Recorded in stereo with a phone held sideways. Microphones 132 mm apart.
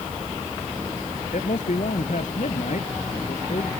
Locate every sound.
1.3 s a man speaking: 70° left (ahead or behind); by 3.7 s 65° left (ahead or behind)